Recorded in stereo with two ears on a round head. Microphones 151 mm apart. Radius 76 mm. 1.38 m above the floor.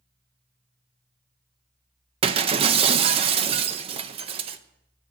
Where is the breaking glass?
35° right (ahead or behind), 0.5 m.